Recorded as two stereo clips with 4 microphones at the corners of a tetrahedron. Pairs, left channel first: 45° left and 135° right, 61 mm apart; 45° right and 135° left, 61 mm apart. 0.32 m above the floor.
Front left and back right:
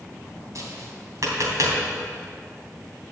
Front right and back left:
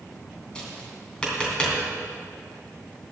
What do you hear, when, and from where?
0.6 s tapping: 115° right, 3 m